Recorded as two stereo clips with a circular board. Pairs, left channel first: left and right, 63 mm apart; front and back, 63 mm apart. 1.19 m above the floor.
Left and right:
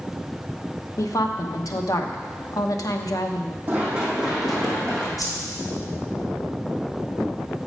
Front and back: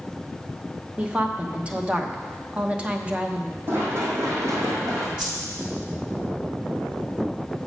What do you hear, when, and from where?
1.0 s a woman speaking: 110° left, 0.8 m
3.7 s running footsteps: 145° right, 2 m; by 5.1 s 165° left, 3 m
5.2 s a whoosh: 105° left, 3.5 m